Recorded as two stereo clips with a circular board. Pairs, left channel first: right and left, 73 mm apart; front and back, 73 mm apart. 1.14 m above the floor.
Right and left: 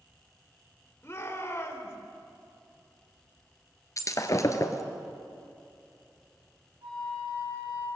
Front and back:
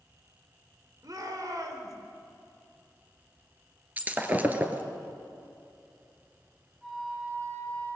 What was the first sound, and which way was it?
A shout, 145° right.